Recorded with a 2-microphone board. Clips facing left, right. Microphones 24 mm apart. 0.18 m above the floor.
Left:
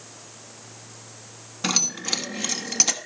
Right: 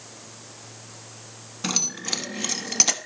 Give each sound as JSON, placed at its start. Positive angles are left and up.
{"t": 1.6, "sound": "keys jangling", "side_deg": 15, "distance_m": 1.4}